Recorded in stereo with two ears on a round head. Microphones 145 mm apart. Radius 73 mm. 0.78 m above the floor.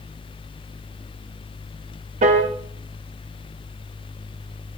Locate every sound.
2.2 s a piano: 45° right (ahead or behind), 0.8 m